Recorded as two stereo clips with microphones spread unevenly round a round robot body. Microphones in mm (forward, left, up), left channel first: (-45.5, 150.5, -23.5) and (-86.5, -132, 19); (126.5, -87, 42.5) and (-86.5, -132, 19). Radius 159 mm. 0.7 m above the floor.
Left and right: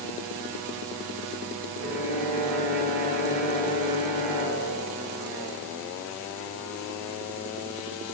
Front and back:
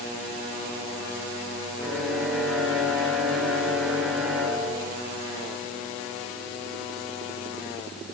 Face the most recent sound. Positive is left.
turn(degrees=-75)